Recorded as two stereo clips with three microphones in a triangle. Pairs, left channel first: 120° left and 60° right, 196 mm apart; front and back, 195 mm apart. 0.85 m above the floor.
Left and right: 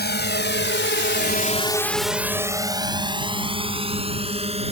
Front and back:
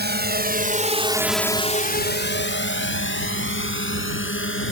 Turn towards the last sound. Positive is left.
turn(degrees=0)